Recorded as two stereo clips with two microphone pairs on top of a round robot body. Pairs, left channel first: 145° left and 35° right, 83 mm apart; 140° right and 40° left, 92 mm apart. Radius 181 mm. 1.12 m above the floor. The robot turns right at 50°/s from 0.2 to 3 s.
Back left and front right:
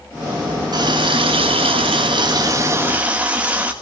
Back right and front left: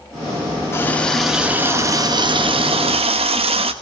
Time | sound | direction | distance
0.7 | a running tap | 75° right | 1.7 m